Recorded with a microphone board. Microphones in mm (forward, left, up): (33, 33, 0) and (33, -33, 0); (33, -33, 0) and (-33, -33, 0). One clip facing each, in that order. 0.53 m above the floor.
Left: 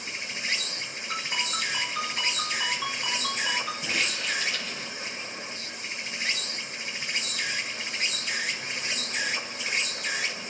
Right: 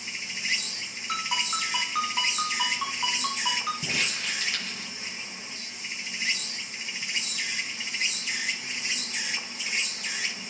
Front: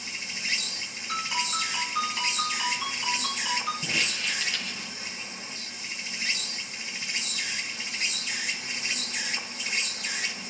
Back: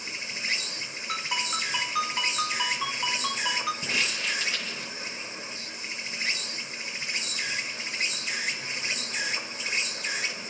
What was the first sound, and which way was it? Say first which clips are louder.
An insect: left 1 dB, back 1 dB; 135° left.